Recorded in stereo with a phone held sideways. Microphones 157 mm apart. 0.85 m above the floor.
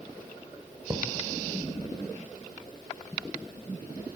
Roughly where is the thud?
Right.